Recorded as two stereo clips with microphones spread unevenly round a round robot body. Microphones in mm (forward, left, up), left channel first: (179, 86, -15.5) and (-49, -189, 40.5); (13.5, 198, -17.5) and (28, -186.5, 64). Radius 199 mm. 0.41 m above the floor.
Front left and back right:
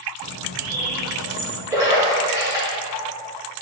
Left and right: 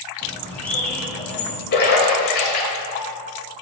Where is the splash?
145° left, 1.5 m.